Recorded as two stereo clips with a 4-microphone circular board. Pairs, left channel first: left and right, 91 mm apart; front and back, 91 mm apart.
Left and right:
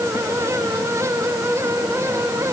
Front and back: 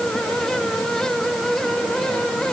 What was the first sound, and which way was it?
Only background noise.